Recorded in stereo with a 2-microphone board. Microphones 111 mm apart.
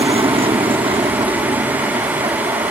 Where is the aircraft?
55° right (ahead or behind).